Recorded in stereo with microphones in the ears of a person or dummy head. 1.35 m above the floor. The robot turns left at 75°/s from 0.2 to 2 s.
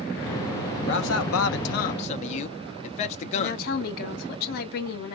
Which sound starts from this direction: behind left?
A man speaking, at 0.9 s.